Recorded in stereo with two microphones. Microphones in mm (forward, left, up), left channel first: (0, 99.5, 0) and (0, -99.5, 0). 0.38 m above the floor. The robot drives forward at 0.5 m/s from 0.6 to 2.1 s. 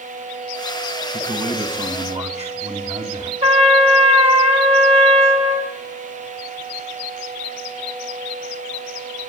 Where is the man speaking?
40° right (ahead or behind), 2 m; by 3.3 s 35° right (ahead or behind), 2.5 m.